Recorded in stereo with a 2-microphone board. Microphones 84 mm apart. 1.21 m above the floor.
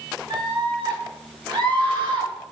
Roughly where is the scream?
Right.